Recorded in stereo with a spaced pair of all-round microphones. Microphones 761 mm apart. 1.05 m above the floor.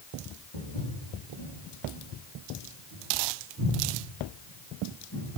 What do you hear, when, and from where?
0.5 s footsteps: 40° left (ahead or behind), 3.5 m; by 5.3 s 20° left (ahead or behind), 6 m